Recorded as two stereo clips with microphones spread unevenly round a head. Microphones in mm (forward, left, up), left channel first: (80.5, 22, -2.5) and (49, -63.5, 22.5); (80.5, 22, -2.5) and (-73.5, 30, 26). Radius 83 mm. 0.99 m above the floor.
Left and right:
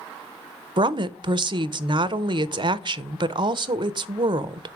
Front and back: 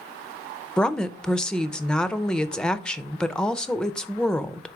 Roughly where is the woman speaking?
Right.